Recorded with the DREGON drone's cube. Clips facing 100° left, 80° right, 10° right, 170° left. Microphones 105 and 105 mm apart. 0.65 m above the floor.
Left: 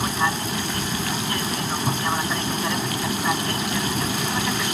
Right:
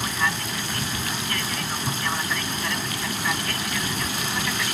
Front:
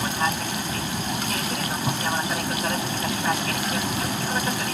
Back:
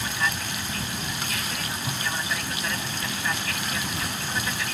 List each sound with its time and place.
0.0 s an aircraft: 40° left